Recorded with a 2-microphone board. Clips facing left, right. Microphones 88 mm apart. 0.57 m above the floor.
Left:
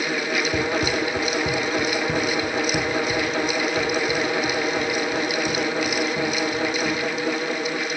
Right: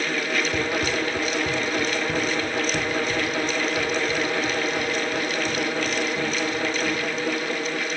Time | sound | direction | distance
0.5 | running footsteps | 45° left (ahead or behind) | 1.2 m